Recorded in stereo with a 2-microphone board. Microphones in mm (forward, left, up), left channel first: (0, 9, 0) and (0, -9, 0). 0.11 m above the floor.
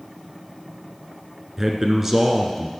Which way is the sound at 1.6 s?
20° right (ahead or behind).